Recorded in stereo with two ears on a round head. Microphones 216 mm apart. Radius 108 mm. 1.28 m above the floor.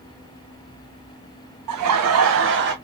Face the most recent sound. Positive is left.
turn(degrees=-45)  # may be behind; listen again after turning